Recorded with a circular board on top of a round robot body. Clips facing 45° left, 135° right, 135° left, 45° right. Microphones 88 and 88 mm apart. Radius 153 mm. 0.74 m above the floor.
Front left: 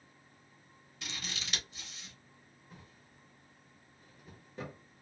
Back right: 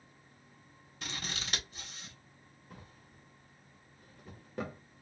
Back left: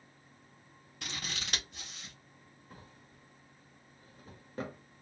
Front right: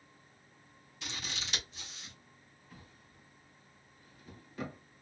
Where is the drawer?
170° right, 0.9 m.